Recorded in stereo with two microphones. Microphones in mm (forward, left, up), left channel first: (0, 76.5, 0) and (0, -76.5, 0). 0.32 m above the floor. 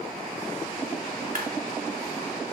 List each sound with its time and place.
1.4 s a clap: 65° right (ahead or behind), 1.4 m